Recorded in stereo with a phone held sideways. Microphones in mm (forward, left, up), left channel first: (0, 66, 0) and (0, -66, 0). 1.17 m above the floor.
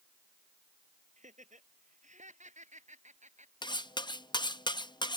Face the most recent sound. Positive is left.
turn(degrees=35)  # may be behind; listen again after turning